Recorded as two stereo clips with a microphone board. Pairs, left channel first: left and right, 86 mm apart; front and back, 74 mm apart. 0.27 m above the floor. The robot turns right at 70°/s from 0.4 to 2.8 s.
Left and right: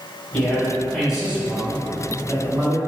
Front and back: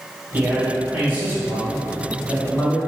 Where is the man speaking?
150° left, 1.4 m; by 2.8 s 45° right, 1.4 m.